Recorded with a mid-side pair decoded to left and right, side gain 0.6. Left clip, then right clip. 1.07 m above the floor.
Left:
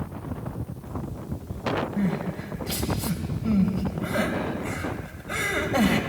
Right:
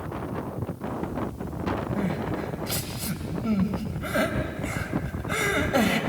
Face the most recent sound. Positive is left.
turn(degrees=-15)